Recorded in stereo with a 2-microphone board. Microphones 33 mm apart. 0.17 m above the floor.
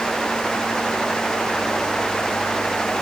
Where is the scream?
I don't hear a scream.